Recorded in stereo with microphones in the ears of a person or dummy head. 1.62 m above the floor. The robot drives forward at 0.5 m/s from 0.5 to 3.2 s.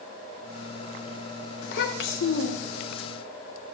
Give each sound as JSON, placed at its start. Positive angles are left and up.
{"t": 1.6, "sound": "a child speaking", "side_deg": 60, "distance_m": 1.1}